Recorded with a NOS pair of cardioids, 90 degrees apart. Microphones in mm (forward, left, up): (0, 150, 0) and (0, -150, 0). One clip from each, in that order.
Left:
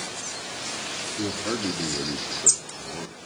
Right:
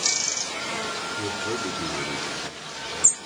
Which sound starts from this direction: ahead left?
A man speaking, at 1.2 s.